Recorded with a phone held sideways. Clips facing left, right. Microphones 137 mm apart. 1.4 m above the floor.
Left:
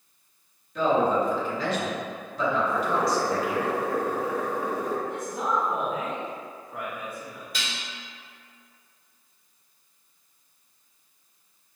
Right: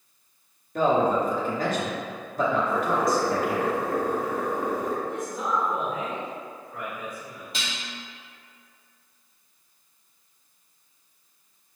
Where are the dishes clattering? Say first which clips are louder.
Right 1 dB; 25° right (ahead or behind), 1.1 m.